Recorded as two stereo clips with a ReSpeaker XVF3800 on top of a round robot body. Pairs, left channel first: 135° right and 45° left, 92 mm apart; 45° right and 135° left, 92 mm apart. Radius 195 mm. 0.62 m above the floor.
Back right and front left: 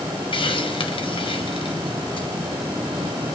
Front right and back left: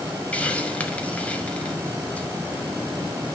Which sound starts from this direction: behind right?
A hiss, at 0.3 s.